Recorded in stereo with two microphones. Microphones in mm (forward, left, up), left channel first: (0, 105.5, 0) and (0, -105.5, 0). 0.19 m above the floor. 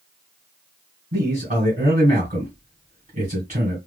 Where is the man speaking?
40° right (ahead or behind), 2 m.